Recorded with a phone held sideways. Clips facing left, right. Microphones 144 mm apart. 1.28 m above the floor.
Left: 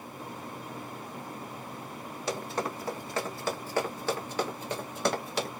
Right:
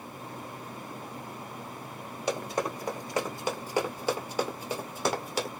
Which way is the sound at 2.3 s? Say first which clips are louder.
Right 2 dB; 15° right (ahead or behind).